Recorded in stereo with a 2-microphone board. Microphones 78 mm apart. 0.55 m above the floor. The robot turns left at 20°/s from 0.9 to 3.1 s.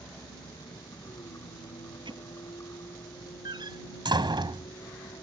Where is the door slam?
70° right (ahead or behind).